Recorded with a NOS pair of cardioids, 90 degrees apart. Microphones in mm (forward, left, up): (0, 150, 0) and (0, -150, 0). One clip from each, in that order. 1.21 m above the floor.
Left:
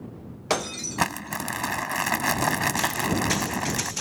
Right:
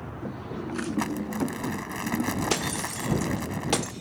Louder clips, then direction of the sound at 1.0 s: Left 6 dB; 60° left.